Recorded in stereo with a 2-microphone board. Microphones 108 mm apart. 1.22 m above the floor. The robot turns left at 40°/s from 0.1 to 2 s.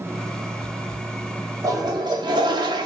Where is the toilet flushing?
30° right (ahead or behind), 0.6 m; by 2.9 s 40° right (ahead or behind), 0.6 m.